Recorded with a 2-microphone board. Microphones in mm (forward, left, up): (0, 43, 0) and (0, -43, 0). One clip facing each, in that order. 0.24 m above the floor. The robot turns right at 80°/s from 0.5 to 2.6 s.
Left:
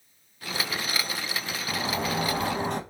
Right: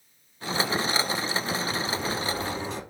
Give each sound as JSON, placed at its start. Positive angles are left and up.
{"t": 1.7, "sound": "a sliding door", "azimuth_deg": 50, "distance_m": 0.5}